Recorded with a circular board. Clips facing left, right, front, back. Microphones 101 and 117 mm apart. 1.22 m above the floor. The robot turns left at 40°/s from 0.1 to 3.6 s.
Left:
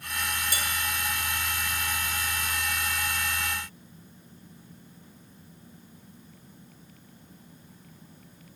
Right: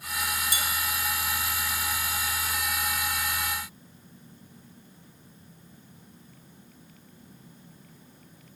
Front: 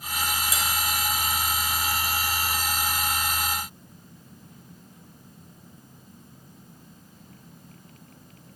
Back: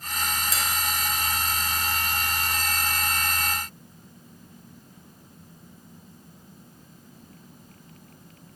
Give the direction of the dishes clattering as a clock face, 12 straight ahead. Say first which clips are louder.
Even, front 1 dB; 10 o'clock.